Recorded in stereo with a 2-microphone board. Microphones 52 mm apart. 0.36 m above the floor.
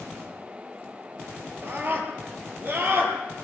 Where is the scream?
40° right (ahead or behind), 8.5 m.